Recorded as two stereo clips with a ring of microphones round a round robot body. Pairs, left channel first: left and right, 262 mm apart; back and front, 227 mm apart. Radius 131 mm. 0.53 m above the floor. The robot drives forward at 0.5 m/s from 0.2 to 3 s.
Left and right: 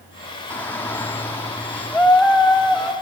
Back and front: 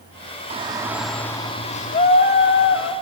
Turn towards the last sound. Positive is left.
turn(degrees=175)